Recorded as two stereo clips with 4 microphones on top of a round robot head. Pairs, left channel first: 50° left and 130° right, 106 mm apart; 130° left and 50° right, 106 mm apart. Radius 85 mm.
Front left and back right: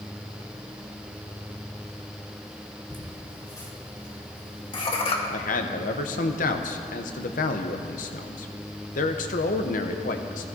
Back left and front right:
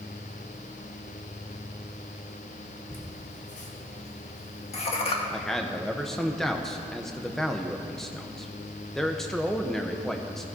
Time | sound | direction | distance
2.9 | laughter | 120° left | 3 m
5.3 | a man speaking | 45° left | 0.8 m